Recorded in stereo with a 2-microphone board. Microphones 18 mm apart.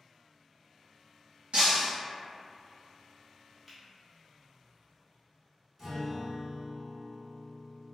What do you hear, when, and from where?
1.5 s breaking glass: 75° right (ahead or behind), 1.2 m
3.7 s a finger snap: 10° right (ahead or behind), 0.9 m
5.8 s a guitar: 25° right (ahead or behind), 1.2 m